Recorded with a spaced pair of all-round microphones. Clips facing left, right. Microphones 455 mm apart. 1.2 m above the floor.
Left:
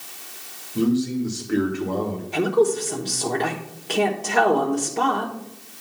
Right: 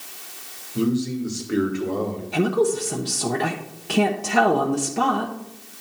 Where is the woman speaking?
25° right (ahead or behind), 1.1 m.